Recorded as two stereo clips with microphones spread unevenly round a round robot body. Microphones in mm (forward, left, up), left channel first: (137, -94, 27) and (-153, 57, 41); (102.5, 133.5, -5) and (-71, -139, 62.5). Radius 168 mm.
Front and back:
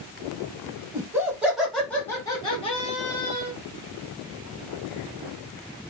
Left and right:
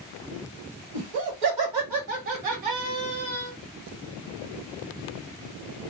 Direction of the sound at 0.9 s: 130° right.